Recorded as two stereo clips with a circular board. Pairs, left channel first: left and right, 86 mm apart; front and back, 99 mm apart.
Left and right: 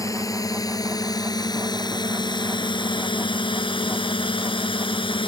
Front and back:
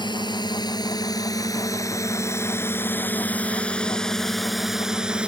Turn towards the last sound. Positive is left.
turn(degrees=100)